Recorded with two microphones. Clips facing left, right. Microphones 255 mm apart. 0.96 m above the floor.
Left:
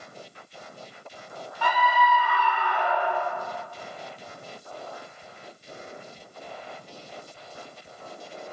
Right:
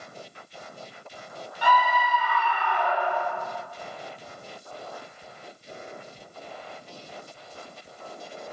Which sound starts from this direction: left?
A scream, at 1.6 s.